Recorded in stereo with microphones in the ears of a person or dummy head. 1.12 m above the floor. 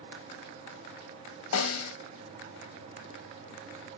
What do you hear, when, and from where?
1.5 s a snare drum: 80° left, 0.7 m